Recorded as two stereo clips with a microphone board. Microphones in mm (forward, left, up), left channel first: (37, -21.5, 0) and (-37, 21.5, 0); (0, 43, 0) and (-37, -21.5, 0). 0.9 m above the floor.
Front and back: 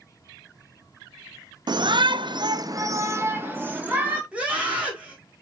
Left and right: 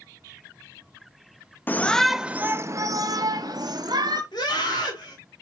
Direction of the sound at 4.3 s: 75° left.